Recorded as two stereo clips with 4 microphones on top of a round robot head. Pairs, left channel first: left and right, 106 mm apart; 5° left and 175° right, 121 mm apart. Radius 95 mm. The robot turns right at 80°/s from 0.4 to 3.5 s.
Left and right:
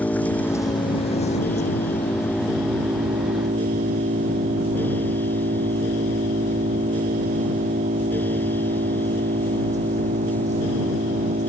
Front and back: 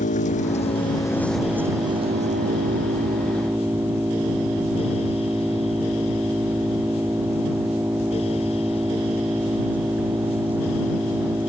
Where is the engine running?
15° left; by 11.5 s 100° right.